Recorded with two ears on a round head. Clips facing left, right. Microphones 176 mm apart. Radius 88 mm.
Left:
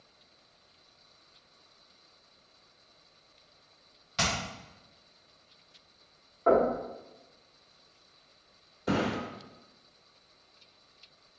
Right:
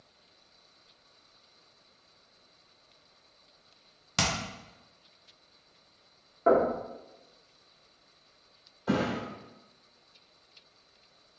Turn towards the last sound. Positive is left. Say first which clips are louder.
# right 1 dB
turn(degrees=25)  # may be behind; listen again after turning